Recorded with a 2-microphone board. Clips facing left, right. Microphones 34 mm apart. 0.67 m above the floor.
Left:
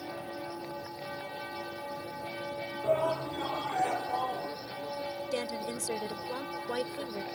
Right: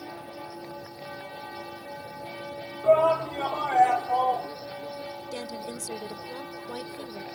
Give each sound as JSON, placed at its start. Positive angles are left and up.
{"t": 2.8, "sound": "a shout", "side_deg": -55}
{"t": 5.3, "sound": "a woman speaking", "side_deg": 40}